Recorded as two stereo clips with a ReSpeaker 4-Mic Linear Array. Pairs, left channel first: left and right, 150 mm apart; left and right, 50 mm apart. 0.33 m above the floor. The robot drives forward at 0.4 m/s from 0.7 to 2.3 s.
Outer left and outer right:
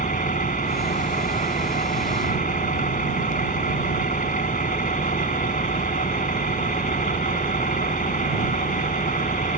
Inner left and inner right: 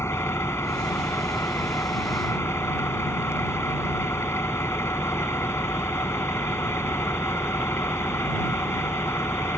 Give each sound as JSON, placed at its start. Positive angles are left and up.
{"t": 0.0, "sound": "an engine running", "side_deg": 70}